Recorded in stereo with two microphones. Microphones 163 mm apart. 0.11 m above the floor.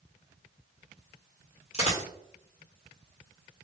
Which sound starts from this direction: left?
A dropped coin, at 1.7 s.